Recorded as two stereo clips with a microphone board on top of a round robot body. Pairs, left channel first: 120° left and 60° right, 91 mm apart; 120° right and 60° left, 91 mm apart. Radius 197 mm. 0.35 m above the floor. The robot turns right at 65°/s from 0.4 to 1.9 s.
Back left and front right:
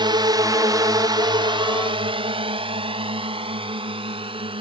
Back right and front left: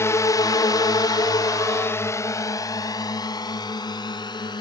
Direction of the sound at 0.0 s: 65° right.